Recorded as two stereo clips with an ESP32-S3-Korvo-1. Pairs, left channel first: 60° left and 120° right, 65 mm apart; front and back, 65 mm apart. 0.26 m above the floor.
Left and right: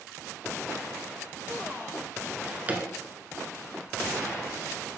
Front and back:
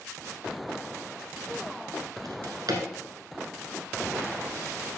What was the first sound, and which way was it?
A drawer, 175° left.